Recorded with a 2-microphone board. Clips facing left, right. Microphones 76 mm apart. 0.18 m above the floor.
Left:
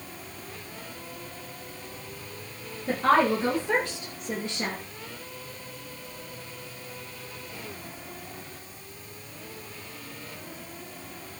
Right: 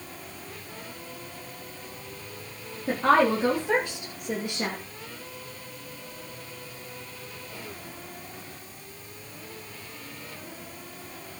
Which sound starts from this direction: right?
A woman speaking, at 2.9 s.